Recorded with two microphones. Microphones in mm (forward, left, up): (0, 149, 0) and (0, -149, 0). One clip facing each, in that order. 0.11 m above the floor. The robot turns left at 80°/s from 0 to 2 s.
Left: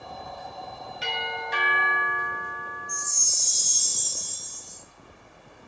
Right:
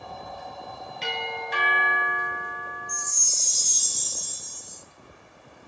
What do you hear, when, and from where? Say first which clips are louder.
1.0 s a doorbell: right 2 dB; 165° left, 1.9 m; by 3.1 s 85° left, 1.9 m
2.9 s a chime: even; 30° right (ahead or behind), 0.7 m